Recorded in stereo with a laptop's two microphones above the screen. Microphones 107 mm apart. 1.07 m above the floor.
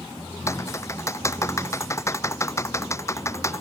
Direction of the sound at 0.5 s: 25° left (ahead or behind).